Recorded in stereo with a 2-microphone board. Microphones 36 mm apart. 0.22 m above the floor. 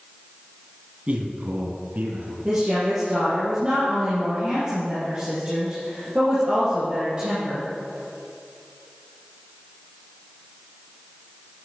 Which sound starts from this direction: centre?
A woman speaking, at 2.5 s.